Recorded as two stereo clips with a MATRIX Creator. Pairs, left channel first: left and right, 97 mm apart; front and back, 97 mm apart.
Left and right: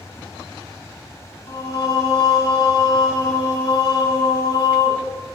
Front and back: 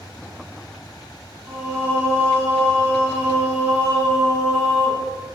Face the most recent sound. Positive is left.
turn(degrees=125)